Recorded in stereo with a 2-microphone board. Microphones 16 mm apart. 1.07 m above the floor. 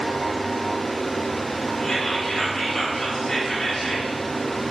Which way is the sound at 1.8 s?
55° left (ahead or behind).